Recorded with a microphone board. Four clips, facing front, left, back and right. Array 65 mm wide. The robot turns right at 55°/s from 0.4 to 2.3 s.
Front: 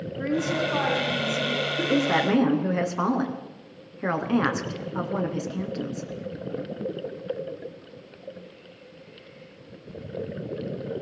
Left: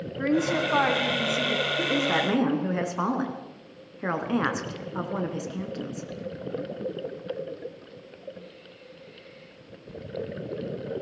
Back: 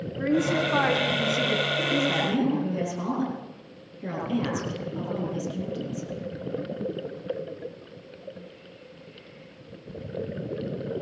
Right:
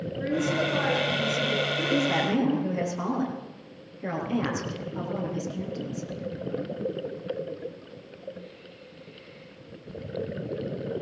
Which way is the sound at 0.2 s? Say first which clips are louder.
Left 2 dB, back 2 dB; 95° left.